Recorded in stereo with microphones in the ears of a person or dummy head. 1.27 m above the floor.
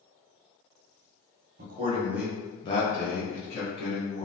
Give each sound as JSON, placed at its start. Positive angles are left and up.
{"t": 1.6, "sound": "a man speaking", "side_deg": -45, "distance_m": 0.7}